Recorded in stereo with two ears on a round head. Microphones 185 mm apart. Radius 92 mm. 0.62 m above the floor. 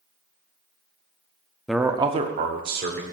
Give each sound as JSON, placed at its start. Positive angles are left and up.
{"t": 1.7, "sound": "a man speaking", "side_deg": 0, "distance_m": 0.7}